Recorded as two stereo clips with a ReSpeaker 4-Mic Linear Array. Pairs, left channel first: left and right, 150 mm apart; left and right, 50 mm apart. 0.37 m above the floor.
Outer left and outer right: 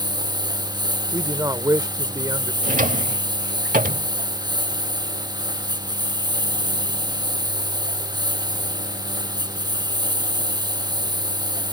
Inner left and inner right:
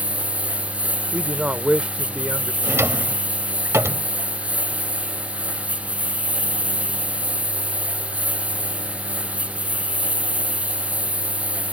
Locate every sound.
0.0 s a lawn mower: 30° right (ahead or behind)
1.1 s a man speaking: 25° right (ahead or behind)
2.6 s a drawer: 65° right (ahead or behind)